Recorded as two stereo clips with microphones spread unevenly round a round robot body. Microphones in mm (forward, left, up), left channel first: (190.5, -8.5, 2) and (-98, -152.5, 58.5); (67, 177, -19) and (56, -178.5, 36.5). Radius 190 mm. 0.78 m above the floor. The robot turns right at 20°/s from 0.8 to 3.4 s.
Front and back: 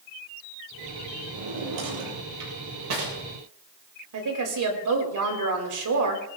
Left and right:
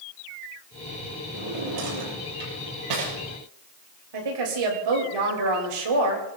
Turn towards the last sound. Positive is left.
turn(degrees=-125)